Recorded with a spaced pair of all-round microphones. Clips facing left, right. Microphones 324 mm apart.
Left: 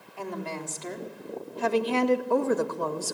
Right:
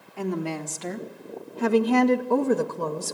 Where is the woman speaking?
80° right, 3 m; by 3.1 s 25° right (ahead or behind), 2.5 m.